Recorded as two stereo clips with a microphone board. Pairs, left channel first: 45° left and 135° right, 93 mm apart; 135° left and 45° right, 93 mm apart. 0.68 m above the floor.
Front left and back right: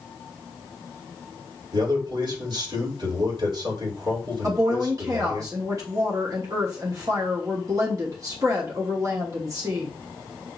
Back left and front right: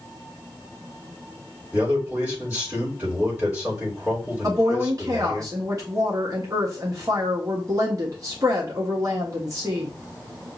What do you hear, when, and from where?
1.7 s a man speaking: 115° right, 3.5 m
4.4 s a woman speaking: 90° right, 1.2 m